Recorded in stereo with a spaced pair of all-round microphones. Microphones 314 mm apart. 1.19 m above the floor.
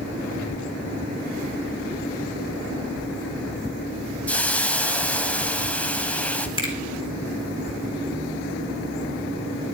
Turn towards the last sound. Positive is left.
turn(degrees=15)  # may be behind; listen again after turning